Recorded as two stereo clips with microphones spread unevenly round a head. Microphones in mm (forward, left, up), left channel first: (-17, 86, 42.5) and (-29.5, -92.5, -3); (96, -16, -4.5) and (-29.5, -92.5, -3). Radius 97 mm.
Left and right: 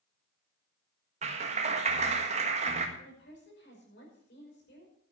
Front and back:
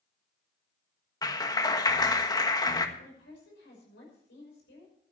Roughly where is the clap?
Ahead right.